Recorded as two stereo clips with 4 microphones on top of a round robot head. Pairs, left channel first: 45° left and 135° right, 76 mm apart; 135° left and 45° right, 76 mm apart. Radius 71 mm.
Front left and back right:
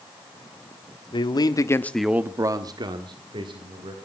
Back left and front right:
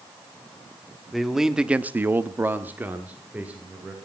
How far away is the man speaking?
About 1.4 m.